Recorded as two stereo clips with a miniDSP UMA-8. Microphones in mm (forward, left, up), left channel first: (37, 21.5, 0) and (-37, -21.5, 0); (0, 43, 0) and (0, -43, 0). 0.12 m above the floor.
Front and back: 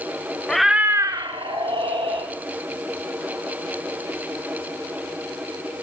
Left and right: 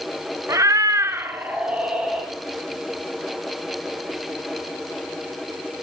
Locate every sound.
0.5 s a cat meowing: 50° right, 0.6 m; by 2.3 s 170° right, 1.5 m